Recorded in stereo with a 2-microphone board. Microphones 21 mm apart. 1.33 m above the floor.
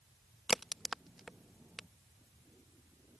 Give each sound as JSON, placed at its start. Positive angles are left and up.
{"t": 0.5, "sound": "a crack", "side_deg": -5}